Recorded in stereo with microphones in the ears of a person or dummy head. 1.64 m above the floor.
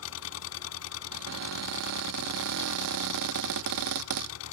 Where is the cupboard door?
70° right (ahead or behind).